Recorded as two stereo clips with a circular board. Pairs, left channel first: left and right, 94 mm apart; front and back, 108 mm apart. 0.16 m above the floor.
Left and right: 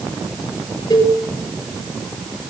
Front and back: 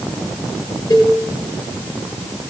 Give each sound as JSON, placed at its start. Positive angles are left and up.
{"t": 0.9, "sound": "a cowbell", "azimuth_deg": 45, "distance_m": 4.0}